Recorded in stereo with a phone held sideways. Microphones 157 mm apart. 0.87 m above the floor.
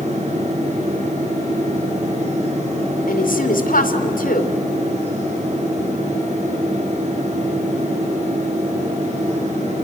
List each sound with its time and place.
0.0 s a fan: 50° right (ahead or behind), 8 m
3.1 s a woman speaking: 70° left (ahead or behind), 2.5 m